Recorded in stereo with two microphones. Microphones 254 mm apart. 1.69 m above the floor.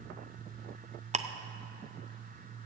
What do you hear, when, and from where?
1.1 s ticking: 25° right (ahead or behind), 0.6 m